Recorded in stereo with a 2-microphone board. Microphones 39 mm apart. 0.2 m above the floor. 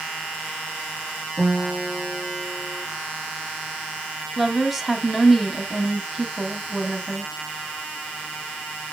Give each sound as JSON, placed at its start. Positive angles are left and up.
{"t": 1.4, "sound": "a guitar", "side_deg": -55, "distance_m": 2.5}
{"t": 4.4, "sound": "a woman speaking", "side_deg": -5, "distance_m": 1.0}